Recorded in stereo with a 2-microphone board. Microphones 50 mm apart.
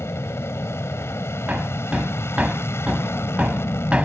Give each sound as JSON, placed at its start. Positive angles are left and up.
{"t": 0.0, "sound": "an aircraft", "side_deg": 60}
{"t": 1.5, "sound": "hammering", "side_deg": -25}